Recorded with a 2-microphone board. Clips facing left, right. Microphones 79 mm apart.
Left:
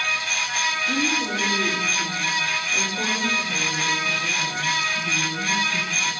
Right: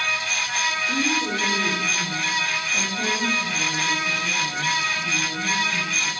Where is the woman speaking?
90° left, 5 m; by 6.1 s 80° left, 11 m.